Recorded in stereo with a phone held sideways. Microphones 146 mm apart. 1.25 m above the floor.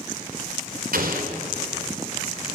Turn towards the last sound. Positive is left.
turn(degrees=-85)